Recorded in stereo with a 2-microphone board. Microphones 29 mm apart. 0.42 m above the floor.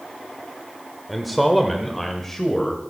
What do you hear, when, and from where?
1.1 s a man speaking: centre (ahead or behind), 1.4 m; by 2.8 s 15° left (ahead or behind), 2 m